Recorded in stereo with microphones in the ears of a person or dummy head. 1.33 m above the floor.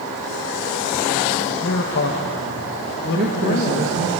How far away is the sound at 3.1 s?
About 1.3 m.